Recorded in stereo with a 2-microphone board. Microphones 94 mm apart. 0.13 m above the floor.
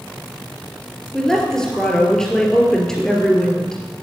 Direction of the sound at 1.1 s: 5° left (ahead or behind).